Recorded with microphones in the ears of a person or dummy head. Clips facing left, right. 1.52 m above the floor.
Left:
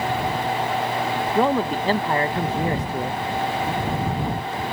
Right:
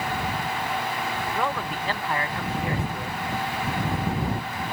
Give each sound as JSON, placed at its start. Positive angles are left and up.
{"t": 1.4, "sound": "a man speaking", "side_deg": 30}